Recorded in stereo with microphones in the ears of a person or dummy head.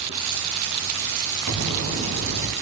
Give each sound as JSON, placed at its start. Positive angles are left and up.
{"t": 1.5, "sound": "an explosion", "side_deg": -65, "distance_m": 4.0}